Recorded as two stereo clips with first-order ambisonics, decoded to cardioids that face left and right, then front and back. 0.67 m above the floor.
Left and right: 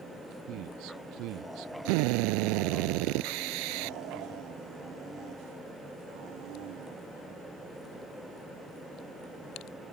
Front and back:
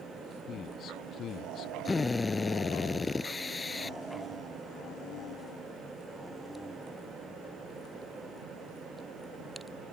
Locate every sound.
0.5 s a man speaking: 55° right
1.9 s a drill: 80° right